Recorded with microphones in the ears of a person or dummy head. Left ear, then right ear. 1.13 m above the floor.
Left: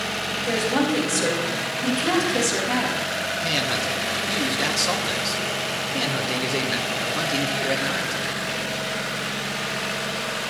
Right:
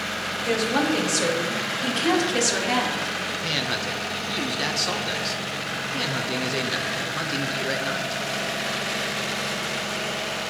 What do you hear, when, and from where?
0.5 s a woman speaking: 40° right (ahead or behind), 5 m; by 3.1 s 55° right (ahead or behind), 3.5 m
3.4 s a man speaking: 5° right (ahead or behind), 1.2 m